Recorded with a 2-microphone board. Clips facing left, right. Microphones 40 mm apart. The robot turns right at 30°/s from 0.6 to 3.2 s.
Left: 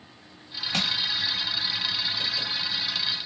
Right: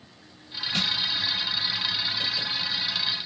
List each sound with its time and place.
0.7 s crushing: 65° left (ahead or behind), 1.5 m; by 1.0 s 70° left (ahead or behind), 1.5 m